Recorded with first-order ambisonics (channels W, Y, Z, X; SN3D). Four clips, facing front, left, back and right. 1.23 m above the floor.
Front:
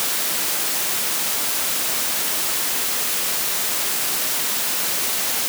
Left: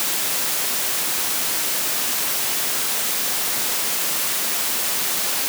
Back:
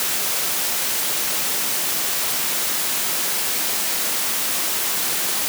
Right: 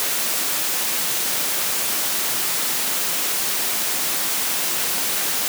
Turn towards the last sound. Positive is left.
No sound to turn to.